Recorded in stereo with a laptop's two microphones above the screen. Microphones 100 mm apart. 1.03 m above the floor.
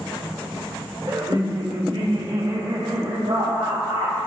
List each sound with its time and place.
1.1 s laughter: 40° right (ahead or behind), 1.4 m; by 4.2 s 80° right, 4 m